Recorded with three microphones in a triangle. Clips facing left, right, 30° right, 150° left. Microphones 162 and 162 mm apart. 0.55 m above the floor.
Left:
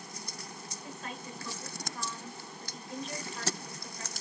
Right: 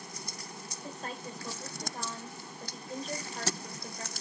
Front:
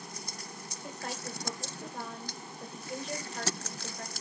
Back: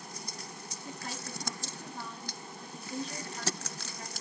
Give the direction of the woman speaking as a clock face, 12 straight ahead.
1 o'clock.